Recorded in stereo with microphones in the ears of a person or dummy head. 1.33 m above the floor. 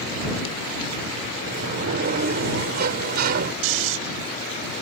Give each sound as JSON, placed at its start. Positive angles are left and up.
{"t": 1.4, "sound": "a sliding door", "side_deg": -50}
{"t": 3.6, "sound": "snoring", "side_deg": -70}